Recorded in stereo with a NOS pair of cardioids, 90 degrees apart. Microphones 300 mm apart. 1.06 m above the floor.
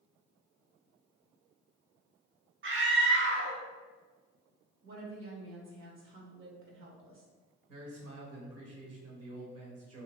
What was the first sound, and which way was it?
A scream, 45° right.